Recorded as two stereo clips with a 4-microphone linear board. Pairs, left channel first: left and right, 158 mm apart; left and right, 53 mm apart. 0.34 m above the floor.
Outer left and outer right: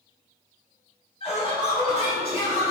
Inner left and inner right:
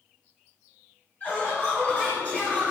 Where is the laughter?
35° left (ahead or behind), 1.1 m.